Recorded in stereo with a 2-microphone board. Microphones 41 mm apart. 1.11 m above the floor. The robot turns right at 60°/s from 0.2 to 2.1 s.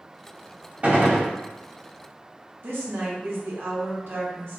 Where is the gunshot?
35° right (ahead or behind), 0.8 m; by 1.3 s 65° right (ahead or behind), 0.8 m.